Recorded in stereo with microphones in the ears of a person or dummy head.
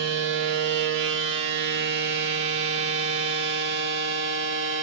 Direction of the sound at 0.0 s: 65° right (ahead or behind).